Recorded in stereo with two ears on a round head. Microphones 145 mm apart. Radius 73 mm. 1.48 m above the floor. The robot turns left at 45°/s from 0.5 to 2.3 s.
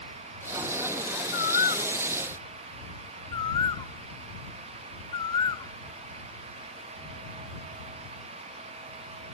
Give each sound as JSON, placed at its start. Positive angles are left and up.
{"t": 1.3, "sound": "a bird", "side_deg": 70}